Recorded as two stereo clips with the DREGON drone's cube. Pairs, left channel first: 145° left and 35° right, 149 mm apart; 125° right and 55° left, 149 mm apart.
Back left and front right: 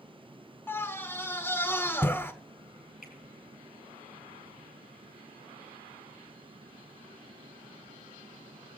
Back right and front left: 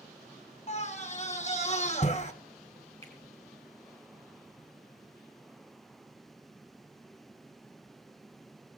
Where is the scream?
140° right, 1.9 m.